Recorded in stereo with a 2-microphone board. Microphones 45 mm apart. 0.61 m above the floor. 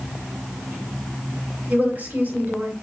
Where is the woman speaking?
40° right (ahead or behind), 4.5 m.